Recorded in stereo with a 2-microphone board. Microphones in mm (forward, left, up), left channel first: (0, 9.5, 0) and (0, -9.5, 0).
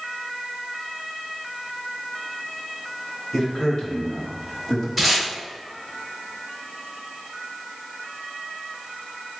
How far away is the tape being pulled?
About 1.8 m.